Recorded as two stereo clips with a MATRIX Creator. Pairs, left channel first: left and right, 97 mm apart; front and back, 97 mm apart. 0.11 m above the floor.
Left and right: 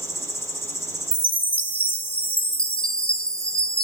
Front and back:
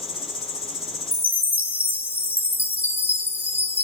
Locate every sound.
0.0 s an insect: 140° left, 1.8 m
1.1 s a chime: 105° left, 0.9 m